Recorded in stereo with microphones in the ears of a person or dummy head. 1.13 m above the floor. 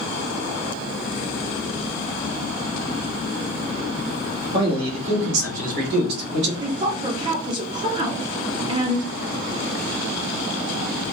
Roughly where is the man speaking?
Right.